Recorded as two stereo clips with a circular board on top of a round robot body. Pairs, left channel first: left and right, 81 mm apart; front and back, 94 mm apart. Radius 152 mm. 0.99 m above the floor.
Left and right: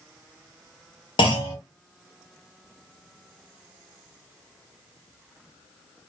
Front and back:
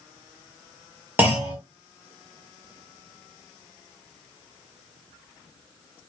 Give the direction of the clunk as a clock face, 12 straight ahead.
8 o'clock.